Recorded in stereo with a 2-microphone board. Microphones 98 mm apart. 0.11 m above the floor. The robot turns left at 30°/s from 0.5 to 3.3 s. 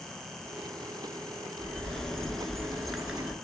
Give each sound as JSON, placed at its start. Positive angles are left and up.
{"t": 1.6, "sound": "a bird", "side_deg": 15, "distance_m": 0.6}